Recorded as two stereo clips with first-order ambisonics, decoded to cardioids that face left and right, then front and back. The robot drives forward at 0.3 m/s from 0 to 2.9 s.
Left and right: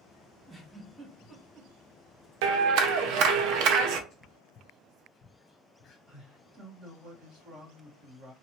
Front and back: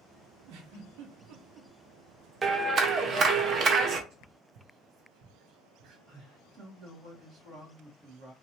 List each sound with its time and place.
0.5 s a giggle: 170° right, 1.0 m
2.4 s a clap: 105° right, 0.5 m; by 4.0 s 120° right, 0.6 m
4.1 s whispering: 150° left, 0.6 m
6.1 s a man speaking: 140° right, 1.8 m